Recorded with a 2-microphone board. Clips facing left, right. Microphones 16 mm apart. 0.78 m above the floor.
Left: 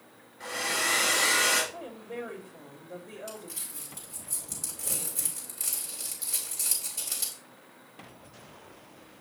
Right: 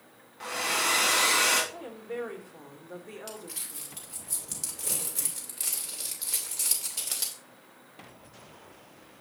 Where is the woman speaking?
55° right (ahead or behind), 2 m.